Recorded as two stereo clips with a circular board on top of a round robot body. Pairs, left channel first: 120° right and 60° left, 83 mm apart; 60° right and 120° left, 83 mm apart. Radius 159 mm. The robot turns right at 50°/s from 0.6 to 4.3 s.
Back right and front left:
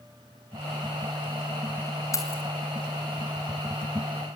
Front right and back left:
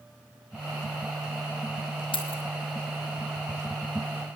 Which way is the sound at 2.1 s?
70° right.